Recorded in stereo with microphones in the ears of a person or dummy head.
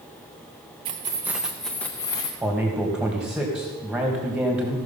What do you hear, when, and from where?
0.8 s keys jangling: 30° right (ahead or behind), 0.8 m; by 2.3 s 20° left (ahead or behind), 1.1 m
2.4 s a man speaking: 5° right (ahead or behind), 2.0 m